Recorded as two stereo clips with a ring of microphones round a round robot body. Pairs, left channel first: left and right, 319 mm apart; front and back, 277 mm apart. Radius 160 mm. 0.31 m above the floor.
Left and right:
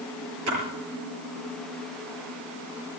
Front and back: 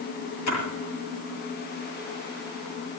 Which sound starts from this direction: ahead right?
A splash, at 0.5 s.